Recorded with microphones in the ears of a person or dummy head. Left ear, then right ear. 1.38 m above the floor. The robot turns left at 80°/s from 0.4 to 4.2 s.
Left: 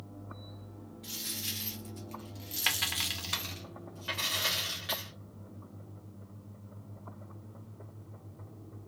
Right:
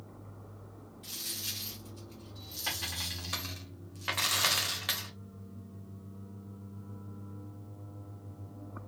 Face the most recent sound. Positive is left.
turn(degrees=-60)